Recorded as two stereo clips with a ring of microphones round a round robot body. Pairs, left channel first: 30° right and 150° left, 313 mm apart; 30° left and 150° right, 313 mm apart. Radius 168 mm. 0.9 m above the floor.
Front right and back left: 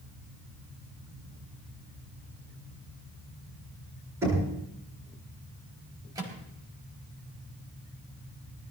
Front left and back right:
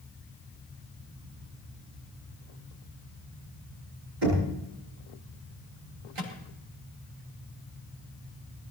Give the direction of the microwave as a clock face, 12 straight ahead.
4 o'clock.